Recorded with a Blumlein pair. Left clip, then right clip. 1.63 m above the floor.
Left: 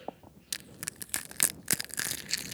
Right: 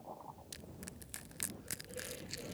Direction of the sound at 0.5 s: 35° left.